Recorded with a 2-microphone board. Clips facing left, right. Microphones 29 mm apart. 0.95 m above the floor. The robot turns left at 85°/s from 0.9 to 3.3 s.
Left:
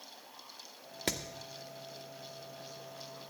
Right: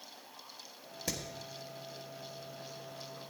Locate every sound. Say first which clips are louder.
1.1 s hammering: left 3 dB; 80° left, 1.1 m; by 1.2 s 85° left, 1.1 m